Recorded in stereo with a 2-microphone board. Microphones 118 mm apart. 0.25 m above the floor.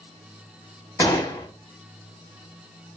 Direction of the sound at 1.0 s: 30° left (ahead or behind).